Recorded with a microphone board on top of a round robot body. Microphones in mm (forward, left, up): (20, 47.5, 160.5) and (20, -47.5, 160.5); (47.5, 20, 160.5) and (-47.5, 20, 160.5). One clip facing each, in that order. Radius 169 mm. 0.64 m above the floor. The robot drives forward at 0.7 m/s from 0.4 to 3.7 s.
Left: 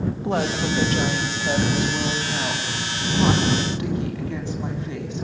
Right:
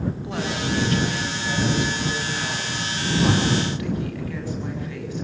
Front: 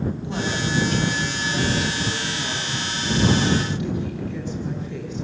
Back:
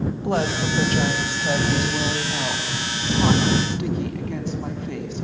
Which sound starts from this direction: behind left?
A woman speaking, at 0.2 s.